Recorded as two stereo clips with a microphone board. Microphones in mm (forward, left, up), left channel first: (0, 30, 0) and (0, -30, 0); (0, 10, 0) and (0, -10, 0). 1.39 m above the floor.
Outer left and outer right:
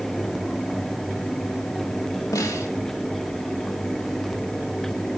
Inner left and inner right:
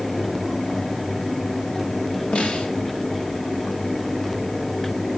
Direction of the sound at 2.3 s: 70° left (ahead or behind).